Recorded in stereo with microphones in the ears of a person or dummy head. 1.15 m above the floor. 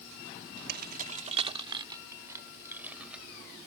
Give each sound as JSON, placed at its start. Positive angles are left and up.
{"t": 0.7, "sound": "keys jangling", "side_deg": -60}